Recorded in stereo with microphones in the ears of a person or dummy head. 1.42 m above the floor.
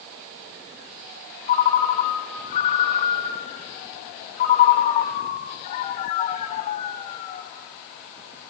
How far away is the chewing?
No chewing in this recording.